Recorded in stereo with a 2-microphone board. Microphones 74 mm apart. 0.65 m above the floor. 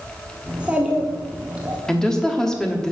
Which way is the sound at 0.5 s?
15° right (ahead or behind).